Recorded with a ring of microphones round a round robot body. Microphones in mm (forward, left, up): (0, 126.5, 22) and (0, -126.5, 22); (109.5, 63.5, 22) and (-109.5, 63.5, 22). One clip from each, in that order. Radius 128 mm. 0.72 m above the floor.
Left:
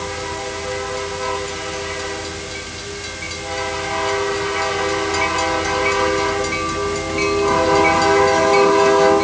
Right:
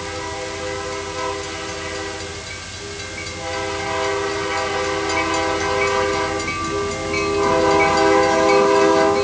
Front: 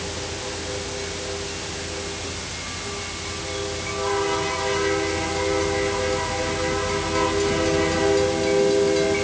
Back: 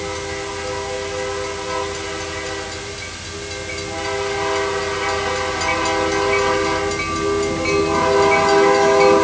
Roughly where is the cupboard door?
I don't hear a cupboard door.